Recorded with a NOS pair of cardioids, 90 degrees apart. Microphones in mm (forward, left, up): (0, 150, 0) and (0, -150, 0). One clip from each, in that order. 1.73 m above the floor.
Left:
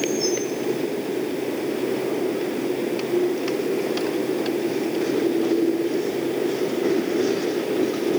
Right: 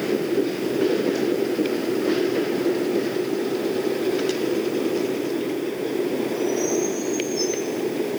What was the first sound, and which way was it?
Only background noise.